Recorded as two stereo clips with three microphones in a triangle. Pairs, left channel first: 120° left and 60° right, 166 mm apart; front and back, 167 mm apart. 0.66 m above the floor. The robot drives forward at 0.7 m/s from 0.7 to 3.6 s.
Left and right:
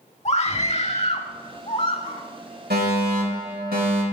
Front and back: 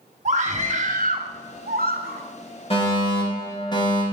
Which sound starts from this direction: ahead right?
A fire alarm, at 2.7 s.